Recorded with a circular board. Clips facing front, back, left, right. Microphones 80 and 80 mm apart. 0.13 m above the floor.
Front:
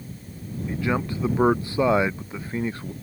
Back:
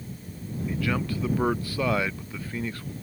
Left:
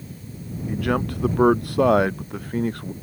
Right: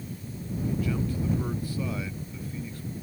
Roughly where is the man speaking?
Ahead left.